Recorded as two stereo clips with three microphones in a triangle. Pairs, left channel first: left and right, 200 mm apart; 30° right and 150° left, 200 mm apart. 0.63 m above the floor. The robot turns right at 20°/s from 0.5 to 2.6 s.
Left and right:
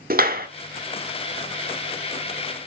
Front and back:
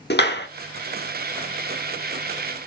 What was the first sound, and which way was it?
A clap, 55° right.